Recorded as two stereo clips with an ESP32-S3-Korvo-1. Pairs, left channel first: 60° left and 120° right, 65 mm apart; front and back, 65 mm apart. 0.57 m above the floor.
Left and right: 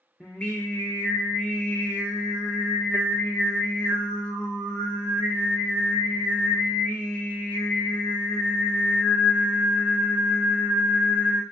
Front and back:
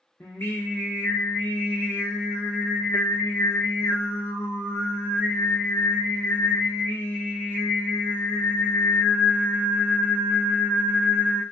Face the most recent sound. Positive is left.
turn(degrees=10)